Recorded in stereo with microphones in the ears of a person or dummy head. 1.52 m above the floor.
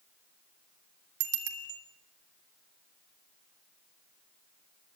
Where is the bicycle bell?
80° right, 3 m.